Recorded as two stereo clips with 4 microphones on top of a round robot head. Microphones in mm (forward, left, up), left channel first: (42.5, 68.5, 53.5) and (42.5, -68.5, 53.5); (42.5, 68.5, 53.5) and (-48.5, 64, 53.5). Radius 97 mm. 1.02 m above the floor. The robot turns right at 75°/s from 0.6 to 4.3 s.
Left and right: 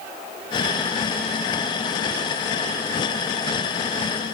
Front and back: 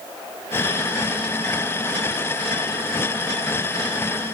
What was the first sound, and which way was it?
Only background noise.